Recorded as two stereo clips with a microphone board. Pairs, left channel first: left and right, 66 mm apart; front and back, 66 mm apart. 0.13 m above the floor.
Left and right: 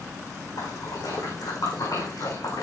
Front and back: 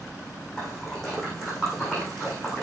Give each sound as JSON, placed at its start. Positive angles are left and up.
{"t": 0.6, "sound": "a splash", "azimuth_deg": 85, "distance_m": 7.5}